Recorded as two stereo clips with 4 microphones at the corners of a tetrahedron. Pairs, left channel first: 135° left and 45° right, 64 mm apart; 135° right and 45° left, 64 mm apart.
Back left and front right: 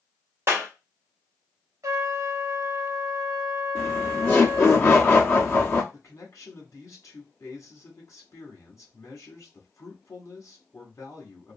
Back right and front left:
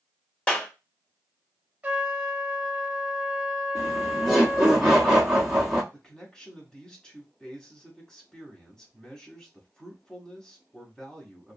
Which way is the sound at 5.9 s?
150° left.